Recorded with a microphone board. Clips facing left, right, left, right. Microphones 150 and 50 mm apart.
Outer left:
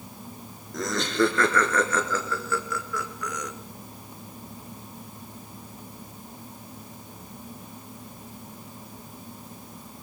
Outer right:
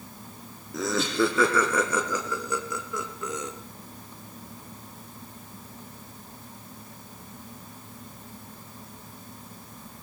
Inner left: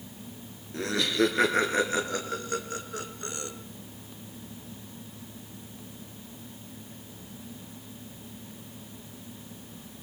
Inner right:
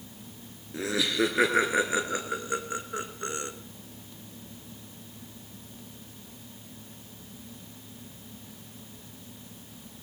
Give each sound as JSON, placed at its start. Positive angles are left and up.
{"t": 0.7, "sound": "laughter", "side_deg": -5, "distance_m": 2.5}